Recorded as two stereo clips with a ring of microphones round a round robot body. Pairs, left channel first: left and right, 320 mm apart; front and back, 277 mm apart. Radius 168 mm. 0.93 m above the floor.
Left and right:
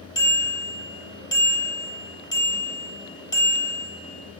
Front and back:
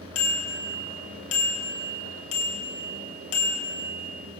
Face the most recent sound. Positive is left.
turn(degrees=15)